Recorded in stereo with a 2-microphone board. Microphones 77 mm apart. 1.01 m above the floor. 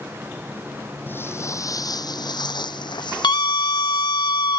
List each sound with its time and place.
1.1 s footsteps: 25° left (ahead or behind); by 4.2 s 65° left (ahead or behind)
3.2 s a scream: 75° left (ahead or behind)